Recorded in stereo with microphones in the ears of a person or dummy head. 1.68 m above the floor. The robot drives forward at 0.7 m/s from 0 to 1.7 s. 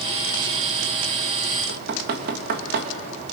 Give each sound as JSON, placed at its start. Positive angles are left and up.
{"t": 1.7, "sound": "knocking", "side_deg": -60, "distance_m": 1.9}